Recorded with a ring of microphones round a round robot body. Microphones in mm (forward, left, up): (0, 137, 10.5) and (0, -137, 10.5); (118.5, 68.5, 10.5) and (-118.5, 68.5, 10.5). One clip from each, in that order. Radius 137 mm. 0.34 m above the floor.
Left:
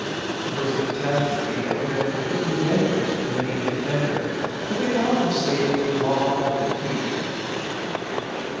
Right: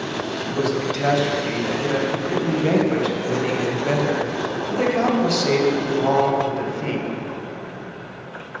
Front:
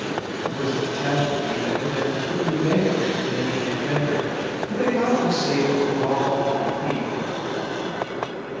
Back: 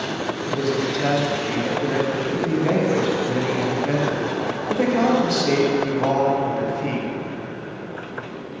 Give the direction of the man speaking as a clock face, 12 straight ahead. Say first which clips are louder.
Right 2 dB, back 3 dB; 5 o'clock.